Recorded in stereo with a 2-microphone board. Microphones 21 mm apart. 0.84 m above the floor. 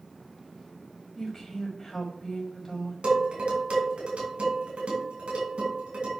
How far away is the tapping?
No tapping in this recording.